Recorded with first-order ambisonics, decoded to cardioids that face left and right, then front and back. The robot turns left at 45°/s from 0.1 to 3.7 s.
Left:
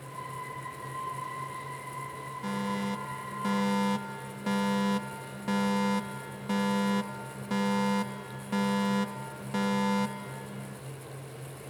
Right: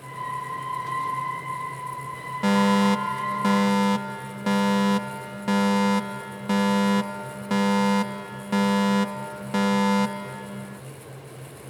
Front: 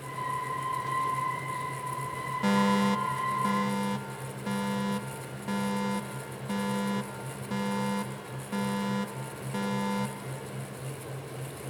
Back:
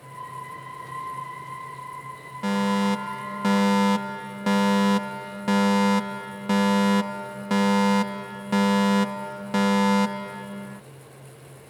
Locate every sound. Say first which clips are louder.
2.4 s a fire alarm: right 13 dB, back 2 dB; 90° right; by 10.8 s 145° right